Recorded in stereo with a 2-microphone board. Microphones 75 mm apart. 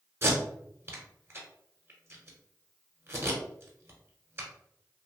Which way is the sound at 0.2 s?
35° right (ahead or behind).